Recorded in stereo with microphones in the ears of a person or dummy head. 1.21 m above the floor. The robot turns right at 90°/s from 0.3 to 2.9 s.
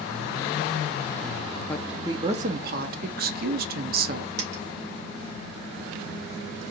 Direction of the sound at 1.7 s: 170° left.